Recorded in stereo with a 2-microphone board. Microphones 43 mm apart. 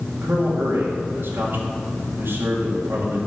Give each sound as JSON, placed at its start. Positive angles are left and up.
{"t": 0.2, "sound": "a man speaking", "side_deg": -70, "distance_m": 2.5}